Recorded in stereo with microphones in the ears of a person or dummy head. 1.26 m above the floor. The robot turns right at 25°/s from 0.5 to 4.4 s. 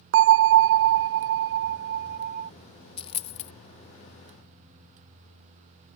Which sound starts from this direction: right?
A bell, at 0.1 s.